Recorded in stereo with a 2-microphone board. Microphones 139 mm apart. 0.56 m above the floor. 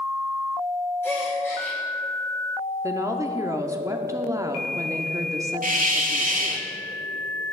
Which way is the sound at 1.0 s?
15° left (ahead or behind).